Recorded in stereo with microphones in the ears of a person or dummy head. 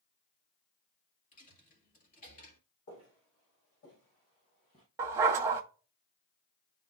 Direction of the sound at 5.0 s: 20° right (ahead or behind).